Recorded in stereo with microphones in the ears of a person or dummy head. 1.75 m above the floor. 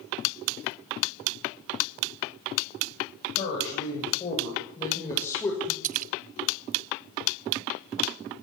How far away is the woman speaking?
About 8.5 m.